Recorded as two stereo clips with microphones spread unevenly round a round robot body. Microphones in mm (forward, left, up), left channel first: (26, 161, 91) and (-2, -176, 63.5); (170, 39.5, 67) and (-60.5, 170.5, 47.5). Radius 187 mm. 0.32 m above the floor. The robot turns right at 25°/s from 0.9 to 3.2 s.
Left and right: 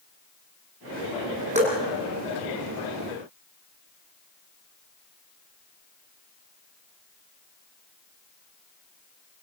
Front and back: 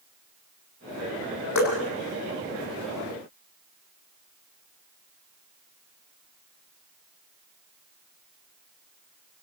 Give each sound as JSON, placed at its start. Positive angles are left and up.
{"t": 1.6, "sound": "dripping", "azimuth_deg": -25, "distance_m": 7.5}